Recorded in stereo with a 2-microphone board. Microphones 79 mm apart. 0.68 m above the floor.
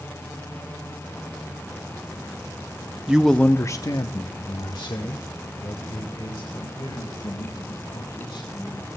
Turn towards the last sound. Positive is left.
turn(degrees=80)